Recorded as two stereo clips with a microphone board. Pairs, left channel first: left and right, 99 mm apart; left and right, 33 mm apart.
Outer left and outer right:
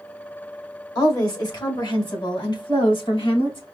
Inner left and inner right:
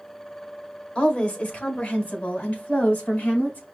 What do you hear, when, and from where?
0.9 s a woman speaking: 35° left (ahead or behind), 2 m; by 3.6 s 55° left (ahead or behind), 3.5 m